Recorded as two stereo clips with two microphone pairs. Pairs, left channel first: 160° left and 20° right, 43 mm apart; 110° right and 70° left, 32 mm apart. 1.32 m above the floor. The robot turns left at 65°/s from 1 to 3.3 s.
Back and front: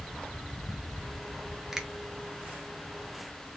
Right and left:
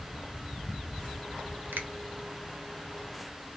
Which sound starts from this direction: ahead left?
A finger snap, at 1.7 s.